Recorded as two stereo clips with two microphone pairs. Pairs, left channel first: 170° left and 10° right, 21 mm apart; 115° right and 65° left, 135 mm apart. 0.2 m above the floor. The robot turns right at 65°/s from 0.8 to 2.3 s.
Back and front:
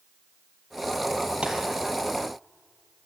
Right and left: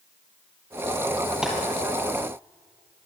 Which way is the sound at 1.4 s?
20° right.